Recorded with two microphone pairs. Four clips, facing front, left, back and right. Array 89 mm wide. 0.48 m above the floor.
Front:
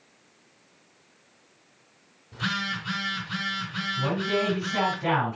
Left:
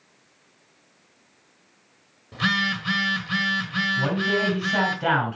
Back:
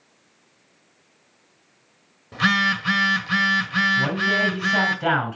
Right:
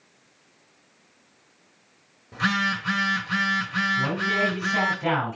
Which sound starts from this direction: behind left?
A man speaking, at 4.0 s.